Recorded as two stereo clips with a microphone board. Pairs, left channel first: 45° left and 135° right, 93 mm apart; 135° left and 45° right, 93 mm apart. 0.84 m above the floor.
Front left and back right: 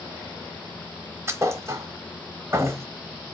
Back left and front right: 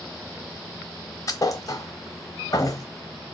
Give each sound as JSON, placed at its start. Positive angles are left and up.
{"t": 1.3, "sound": "a thud", "azimuth_deg": 175, "distance_m": 0.8}